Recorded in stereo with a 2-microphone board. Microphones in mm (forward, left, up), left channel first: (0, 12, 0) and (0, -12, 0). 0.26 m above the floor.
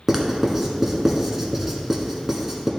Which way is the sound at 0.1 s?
20° right (ahead or behind).